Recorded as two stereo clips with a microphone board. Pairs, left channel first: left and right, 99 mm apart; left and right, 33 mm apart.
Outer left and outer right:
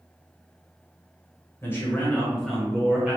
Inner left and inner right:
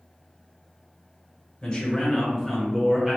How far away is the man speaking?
About 1.8 m.